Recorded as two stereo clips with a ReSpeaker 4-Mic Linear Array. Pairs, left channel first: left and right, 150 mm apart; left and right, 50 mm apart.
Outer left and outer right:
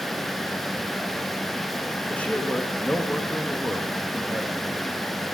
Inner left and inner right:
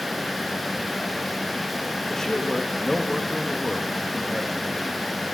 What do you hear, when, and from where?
2.1 s a man speaking: 10° left (ahead or behind), 1.0 m